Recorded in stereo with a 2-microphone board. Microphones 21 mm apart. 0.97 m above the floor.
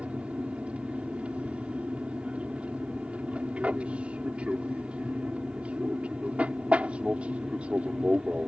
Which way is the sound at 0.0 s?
60° right (ahead or behind).